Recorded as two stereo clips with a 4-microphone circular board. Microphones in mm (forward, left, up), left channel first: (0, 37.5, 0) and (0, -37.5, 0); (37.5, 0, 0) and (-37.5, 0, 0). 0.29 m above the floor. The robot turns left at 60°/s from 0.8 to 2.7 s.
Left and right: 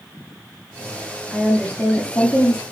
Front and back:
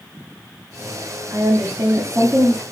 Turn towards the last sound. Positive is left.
turn(degrees=90)